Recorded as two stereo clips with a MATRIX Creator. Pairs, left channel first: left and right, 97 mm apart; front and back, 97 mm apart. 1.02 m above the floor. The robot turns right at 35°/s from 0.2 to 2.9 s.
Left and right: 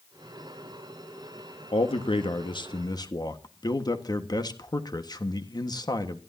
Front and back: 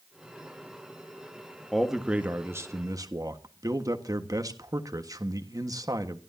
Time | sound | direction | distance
1.7 | a man speaking | 90° left | 1.5 m